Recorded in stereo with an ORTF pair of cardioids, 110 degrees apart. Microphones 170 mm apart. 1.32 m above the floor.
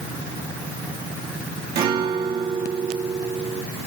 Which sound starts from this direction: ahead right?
A guitar, at 1.8 s.